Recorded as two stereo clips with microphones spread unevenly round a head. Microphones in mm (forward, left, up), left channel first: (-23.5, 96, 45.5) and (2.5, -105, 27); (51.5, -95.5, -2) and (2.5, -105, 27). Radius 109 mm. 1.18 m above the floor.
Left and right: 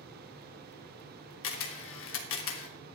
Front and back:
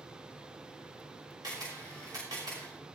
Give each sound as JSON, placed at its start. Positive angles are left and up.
{"t": 1.4, "sound": "a camera shutter", "azimuth_deg": 120, "distance_m": 1.6}